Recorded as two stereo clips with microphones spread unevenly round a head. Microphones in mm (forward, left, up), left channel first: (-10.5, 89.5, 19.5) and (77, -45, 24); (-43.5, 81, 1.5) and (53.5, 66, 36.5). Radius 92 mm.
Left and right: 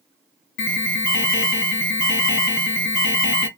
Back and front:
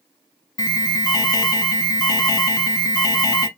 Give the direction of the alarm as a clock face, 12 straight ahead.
8 o'clock.